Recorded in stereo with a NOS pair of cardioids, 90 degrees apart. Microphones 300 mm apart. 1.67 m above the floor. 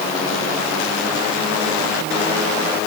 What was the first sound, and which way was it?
Only background noise.